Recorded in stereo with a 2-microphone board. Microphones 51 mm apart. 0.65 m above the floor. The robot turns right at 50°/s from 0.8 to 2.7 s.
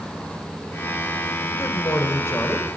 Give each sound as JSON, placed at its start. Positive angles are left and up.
{"t": 1.5, "sound": "a man speaking", "azimuth_deg": 75, "distance_m": 2.5}